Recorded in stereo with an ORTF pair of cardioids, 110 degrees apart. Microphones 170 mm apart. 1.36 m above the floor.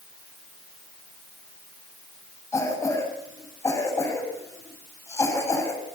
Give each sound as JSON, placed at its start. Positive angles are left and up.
{"t": 2.5, "sound": "a cough", "azimuth_deg": 15, "distance_m": 7.5}